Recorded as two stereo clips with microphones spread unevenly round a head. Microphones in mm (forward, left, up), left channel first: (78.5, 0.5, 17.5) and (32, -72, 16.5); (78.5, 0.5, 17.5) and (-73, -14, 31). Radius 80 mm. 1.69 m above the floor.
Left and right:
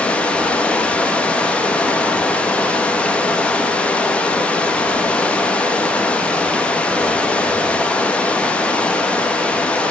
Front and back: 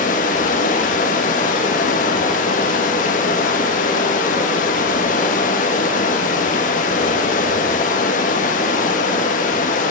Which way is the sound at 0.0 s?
10° right.